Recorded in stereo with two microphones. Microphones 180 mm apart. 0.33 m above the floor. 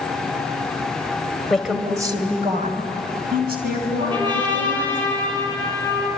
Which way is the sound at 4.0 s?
25° right (ahead or behind).